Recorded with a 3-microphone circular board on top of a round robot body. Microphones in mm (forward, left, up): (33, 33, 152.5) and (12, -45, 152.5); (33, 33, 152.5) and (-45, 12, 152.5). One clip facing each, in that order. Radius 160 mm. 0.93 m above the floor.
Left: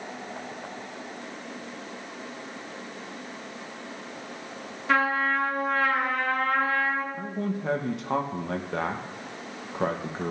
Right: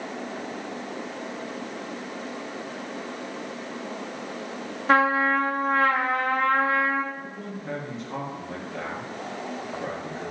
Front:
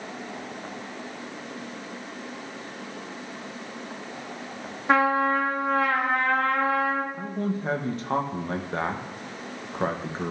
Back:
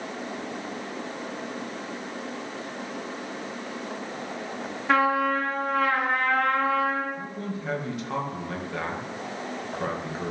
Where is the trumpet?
55° right, 0.6 m.